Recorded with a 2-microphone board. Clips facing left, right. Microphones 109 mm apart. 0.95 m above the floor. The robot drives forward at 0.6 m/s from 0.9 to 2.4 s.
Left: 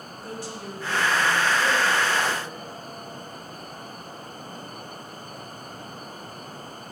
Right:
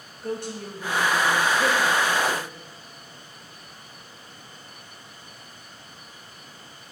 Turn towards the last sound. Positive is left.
turn(degrees=-55)  # may be behind; listen again after turning